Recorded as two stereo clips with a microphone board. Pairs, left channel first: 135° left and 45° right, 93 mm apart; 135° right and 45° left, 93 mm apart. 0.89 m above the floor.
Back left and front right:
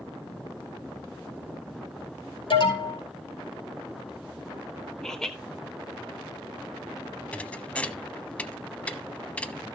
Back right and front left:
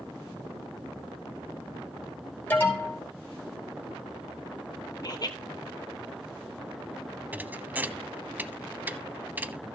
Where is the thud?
80° left, 0.8 m.